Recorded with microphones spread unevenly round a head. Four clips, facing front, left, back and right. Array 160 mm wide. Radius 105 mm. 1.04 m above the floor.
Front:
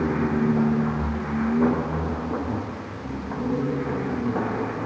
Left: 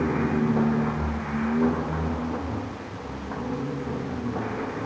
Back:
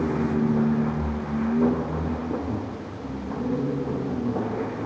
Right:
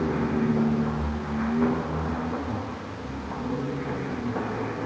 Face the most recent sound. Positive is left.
No sound to turn to.